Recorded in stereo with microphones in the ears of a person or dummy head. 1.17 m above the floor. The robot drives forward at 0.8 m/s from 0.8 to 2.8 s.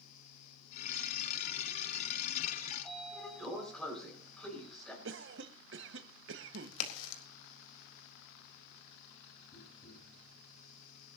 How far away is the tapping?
About 8.5 m.